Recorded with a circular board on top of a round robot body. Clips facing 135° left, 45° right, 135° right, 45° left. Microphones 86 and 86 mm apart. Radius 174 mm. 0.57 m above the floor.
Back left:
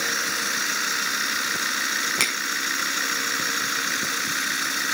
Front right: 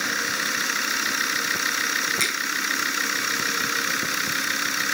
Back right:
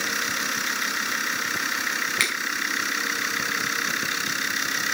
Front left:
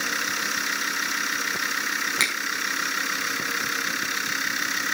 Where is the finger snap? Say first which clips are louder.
Even, front left 1 dB; 110° left, 4 m.